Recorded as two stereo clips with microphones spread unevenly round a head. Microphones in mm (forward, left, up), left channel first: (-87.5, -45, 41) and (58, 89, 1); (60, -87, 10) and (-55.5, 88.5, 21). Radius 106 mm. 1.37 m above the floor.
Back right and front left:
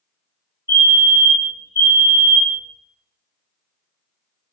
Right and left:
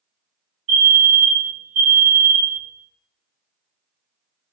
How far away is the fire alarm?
About 2.5 m.